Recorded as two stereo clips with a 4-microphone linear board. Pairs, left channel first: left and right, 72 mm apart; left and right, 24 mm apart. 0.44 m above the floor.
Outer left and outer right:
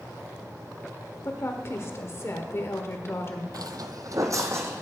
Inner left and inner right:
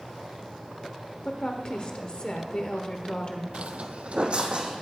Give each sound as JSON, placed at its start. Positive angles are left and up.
{"t": 1.2, "sound": "a woman speaking", "side_deg": 40, "distance_m": 1.2}
{"t": 3.5, "sound": "footsteps", "side_deg": -65, "distance_m": 0.8}